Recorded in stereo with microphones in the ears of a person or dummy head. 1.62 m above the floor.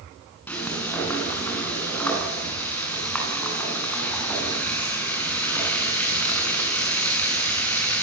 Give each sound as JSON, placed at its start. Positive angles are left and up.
{"t": 0.5, "sound": "frying", "side_deg": 15, "distance_m": 7.5}